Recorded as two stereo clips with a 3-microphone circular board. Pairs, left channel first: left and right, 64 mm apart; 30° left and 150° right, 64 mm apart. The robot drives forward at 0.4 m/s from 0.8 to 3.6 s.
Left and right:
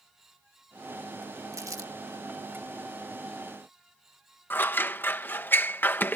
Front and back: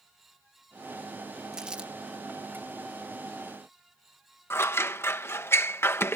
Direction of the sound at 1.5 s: 75° right.